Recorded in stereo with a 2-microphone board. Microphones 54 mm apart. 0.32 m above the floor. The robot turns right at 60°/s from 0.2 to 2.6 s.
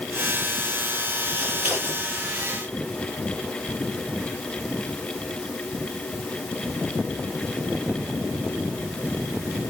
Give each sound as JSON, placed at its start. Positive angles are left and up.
{"t": 1.4, "sound": "scissors", "side_deg": -20, "distance_m": 7.0}